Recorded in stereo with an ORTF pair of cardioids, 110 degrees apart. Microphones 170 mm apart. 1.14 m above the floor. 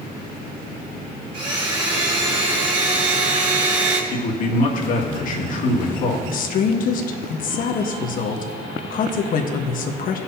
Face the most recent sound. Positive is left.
turn(degrees=55)